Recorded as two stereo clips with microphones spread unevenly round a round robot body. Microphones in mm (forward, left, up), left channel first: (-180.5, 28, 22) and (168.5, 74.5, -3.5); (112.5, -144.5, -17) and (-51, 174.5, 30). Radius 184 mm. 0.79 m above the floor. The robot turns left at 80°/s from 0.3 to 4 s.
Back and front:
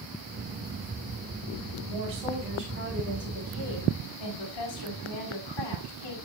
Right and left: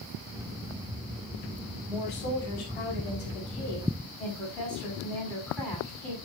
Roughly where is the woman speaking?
Ahead.